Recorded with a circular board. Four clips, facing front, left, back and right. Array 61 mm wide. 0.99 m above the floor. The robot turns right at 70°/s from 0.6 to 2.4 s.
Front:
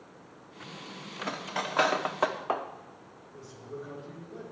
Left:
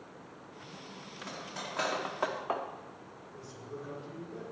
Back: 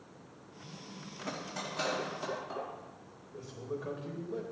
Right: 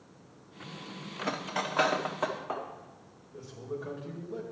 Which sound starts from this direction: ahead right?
Cutlery clinking, at 1.2 s.